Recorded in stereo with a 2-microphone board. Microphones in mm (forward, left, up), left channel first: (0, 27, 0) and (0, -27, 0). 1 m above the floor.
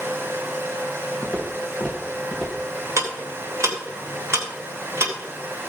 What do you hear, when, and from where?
1.2 s footsteps: 20° left (ahead or behind), 4.5 m; by 2.7 s 15° left (ahead or behind), 6.5 m
3.0 s ticking: 55° right (ahead or behind), 3 m